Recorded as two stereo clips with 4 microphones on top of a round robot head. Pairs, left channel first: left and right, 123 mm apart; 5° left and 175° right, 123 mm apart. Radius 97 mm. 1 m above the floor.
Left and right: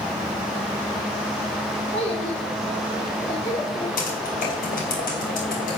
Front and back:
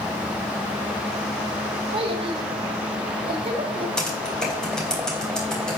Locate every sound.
1.9 s a child speaking: 145° left, 3 m
4.0 s typing on a keyboard: 90° left, 3.5 m